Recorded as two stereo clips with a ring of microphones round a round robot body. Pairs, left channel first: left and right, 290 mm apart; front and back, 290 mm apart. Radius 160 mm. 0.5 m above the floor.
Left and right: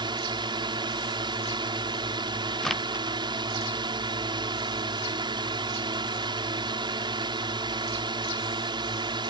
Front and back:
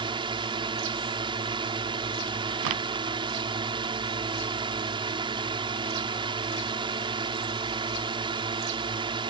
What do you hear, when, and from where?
0.0 s a drone: 135° right
2.6 s a crack: straight behind